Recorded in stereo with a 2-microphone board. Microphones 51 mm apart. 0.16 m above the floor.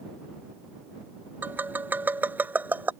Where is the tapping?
35° right (ahead or behind).